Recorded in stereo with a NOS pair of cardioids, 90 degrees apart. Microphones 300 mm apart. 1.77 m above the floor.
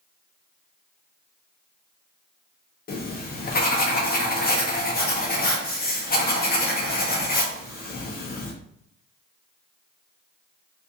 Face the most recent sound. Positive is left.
turn(degrees=30)